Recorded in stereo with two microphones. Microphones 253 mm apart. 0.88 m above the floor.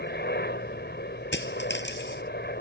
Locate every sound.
0.0 s a helicopter: 40° left (ahead or behind)
1.3 s a dropped coin: 45° left (ahead or behind)